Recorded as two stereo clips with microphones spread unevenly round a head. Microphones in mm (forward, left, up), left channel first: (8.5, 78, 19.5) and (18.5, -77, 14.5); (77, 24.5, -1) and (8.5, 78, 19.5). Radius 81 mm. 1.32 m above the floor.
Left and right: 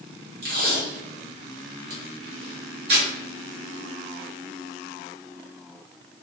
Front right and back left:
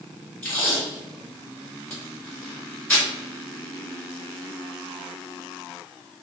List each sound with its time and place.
0.4 s tape being pulled: 120° right, 1.6 m